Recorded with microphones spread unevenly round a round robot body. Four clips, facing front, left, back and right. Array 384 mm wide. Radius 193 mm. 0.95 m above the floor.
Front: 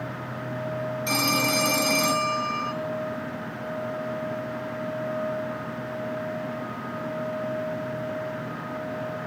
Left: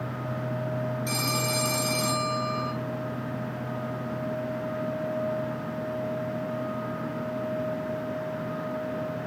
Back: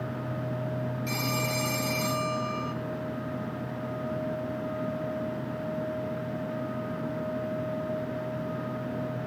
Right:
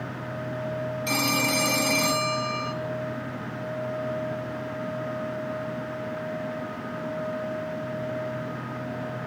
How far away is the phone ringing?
About 3 m.